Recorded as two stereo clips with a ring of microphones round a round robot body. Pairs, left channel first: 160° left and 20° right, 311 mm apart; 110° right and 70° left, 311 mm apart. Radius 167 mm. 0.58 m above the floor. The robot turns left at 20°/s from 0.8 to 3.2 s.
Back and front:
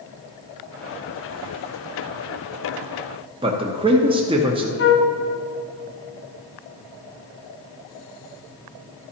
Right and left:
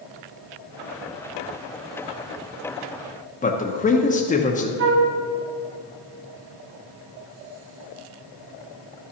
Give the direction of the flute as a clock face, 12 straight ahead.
8 o'clock.